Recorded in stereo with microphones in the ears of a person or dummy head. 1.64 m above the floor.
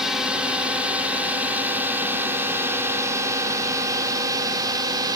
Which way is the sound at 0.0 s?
5° right (ahead or behind).